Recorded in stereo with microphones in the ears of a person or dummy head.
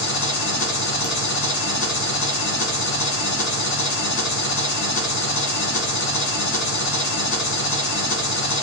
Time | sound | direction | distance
0.0 | an engine running | 65° left (ahead or behind) | 1.3 m